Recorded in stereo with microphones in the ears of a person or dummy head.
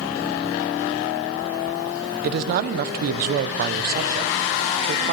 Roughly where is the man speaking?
Right.